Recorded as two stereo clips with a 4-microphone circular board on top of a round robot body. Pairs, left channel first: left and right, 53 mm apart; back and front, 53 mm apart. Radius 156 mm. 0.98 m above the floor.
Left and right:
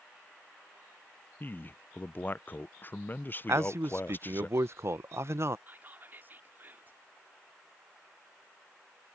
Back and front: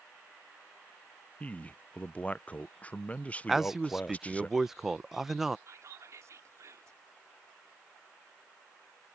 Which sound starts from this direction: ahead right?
Whispering, at 5.7 s.